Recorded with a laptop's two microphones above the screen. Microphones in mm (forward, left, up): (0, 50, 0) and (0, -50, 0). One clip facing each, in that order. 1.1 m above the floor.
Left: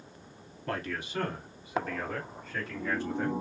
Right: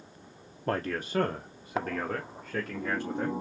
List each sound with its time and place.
0.7 s a man speaking: 35° right (ahead or behind), 0.5 m; by 3.4 s 60° right (ahead or behind), 1.9 m